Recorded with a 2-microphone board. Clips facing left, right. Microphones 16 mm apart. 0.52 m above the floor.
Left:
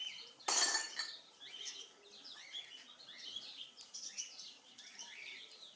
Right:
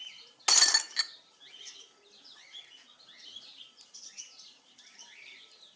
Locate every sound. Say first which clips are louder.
0.5 s breaking glass: right 11 dB; 60° right (ahead or behind), 0.6 m